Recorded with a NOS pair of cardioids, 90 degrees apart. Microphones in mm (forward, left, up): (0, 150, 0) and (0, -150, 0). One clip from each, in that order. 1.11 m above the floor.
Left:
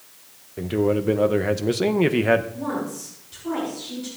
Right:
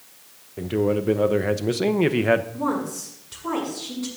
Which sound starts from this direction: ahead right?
A woman speaking, at 2.5 s.